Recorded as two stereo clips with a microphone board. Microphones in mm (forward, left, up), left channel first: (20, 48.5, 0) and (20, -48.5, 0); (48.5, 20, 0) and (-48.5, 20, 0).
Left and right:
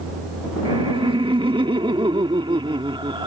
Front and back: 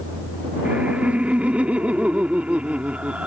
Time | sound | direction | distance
0.7 | laughter | 105° right | ?